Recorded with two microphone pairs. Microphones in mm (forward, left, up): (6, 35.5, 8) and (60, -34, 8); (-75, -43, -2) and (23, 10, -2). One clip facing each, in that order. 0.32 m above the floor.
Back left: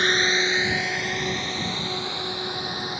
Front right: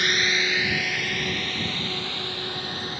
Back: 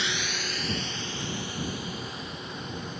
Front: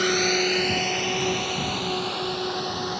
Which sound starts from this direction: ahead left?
A drone, at 0.0 s.